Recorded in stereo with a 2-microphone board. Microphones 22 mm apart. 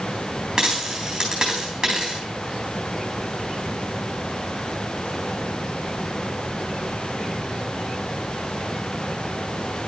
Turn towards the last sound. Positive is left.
turn(degrees=-30)  # may be behind; listen again after turning